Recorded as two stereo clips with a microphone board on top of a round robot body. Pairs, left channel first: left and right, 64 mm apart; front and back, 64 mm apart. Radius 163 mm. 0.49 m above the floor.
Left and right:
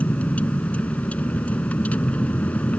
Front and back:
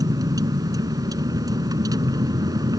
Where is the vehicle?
160° left.